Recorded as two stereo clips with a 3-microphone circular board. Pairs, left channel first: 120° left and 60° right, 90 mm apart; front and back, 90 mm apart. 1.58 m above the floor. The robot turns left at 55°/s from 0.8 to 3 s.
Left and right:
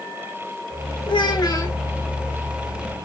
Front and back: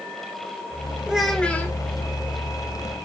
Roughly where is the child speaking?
Left.